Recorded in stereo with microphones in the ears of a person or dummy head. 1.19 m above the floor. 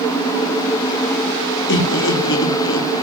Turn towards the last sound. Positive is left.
turn(degrees=65)  # may be behind; listen again after turning